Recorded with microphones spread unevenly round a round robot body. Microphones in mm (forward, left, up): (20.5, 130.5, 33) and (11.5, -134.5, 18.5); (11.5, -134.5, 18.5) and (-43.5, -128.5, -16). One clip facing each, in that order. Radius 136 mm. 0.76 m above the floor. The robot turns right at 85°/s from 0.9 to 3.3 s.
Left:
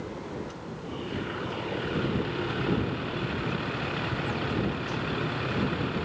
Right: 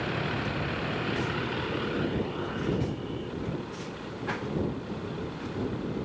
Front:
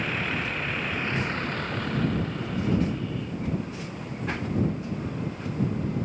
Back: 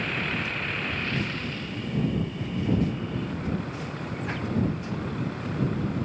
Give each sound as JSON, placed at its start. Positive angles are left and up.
{"t": 0.0, "sound": "a vehicle", "azimuth_deg": -90}